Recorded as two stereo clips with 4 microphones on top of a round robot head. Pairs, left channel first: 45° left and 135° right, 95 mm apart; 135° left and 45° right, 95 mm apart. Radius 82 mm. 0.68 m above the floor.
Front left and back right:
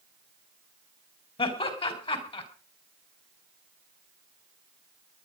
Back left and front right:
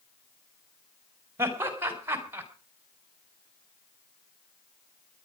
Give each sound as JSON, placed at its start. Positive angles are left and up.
{"t": 1.4, "sound": "laughter", "azimuth_deg": 20, "distance_m": 4.5}